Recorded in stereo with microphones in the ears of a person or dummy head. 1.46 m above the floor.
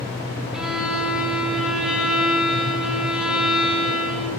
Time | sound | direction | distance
0.5 | a violin | centre (ahead or behind) | 0.9 m